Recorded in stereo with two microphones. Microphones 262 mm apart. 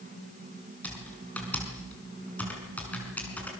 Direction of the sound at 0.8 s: 5° left (ahead or behind).